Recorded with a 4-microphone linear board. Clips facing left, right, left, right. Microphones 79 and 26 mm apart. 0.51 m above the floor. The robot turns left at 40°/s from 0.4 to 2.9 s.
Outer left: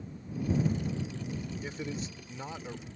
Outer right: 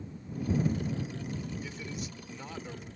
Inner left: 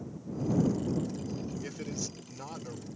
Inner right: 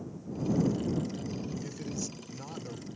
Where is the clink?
I don't hear a clink.